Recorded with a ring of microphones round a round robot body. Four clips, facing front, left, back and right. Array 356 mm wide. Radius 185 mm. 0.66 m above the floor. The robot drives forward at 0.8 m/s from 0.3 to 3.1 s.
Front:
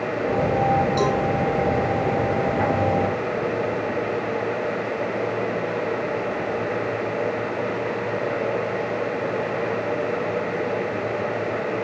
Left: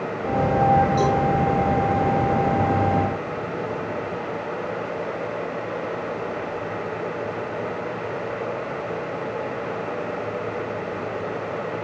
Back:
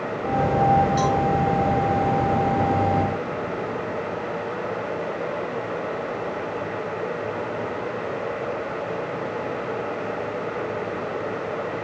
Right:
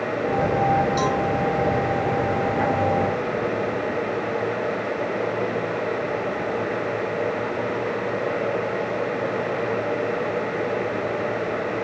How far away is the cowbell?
About 6 m.